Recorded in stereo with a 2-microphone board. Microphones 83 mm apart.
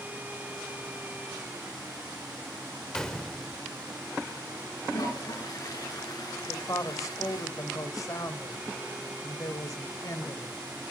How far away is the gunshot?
About 1.4 m.